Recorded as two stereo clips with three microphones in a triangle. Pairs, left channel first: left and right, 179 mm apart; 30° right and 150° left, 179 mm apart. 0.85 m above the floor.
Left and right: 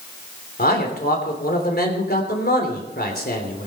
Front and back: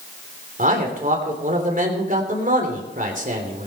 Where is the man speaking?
115° left, 3.5 m.